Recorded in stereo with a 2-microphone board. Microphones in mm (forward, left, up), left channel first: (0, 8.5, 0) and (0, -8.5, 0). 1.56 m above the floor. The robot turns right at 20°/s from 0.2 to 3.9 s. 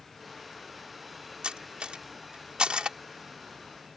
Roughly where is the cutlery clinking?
Right.